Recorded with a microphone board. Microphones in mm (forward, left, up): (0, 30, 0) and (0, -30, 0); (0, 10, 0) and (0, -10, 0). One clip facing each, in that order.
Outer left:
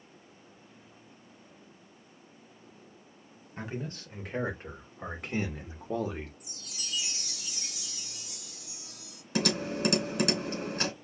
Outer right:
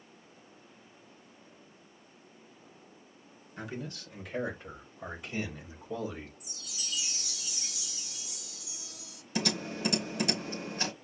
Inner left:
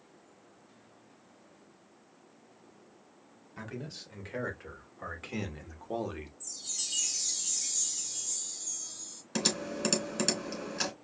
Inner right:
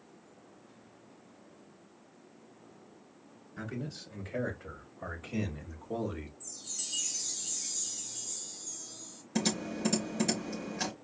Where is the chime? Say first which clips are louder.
Outer left 1 dB, inner left 4 dB; 50° left (ahead or behind), 1.4 m.